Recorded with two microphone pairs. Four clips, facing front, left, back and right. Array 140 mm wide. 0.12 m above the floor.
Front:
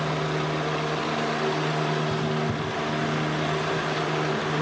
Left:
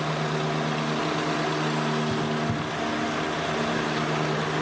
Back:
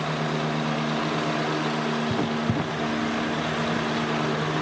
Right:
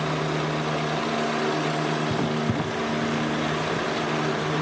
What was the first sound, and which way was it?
Writing, 140° right.